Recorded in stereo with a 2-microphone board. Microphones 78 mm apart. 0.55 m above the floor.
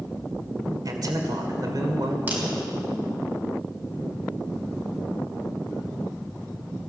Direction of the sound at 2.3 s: 25° right (ahead or behind).